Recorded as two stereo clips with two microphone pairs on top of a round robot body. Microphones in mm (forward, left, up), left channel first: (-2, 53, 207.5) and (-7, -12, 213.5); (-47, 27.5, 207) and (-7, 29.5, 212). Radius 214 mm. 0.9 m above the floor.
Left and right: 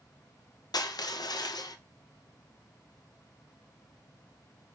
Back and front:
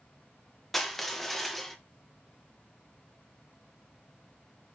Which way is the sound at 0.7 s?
100° left.